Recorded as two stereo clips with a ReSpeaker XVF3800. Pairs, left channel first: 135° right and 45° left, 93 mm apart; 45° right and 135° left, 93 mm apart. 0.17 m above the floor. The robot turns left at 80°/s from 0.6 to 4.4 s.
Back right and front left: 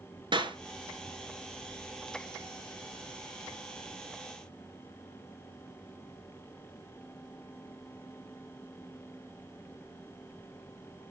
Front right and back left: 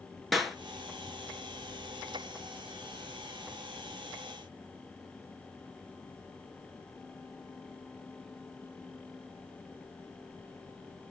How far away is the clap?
About 2.5 m.